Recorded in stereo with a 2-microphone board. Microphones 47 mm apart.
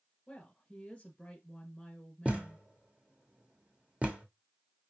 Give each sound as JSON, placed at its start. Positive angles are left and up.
{"t": 0.3, "sound": "a woman speaking", "side_deg": 20, "distance_m": 1.2}
{"t": 2.2, "sound": "a thud", "side_deg": -30, "distance_m": 1.0}